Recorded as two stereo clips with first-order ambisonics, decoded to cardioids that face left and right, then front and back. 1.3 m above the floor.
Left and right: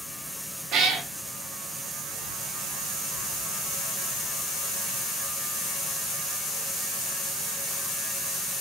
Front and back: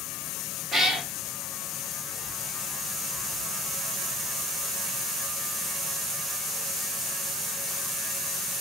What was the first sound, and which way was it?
A cat meowing, 105° right.